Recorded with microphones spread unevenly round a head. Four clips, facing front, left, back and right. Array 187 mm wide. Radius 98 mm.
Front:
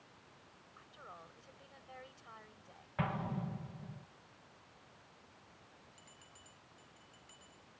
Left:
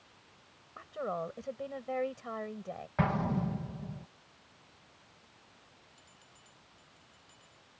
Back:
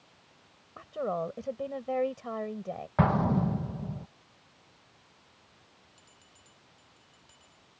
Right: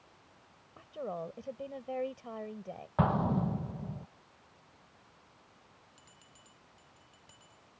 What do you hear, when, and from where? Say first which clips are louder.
0.8 s a woman speaking: left 3 dB, back 23 dB; straight behind
3.0 s an explosion: right 2 dB, back 13 dB; 170° right
6.0 s a bell: even, even; 105° right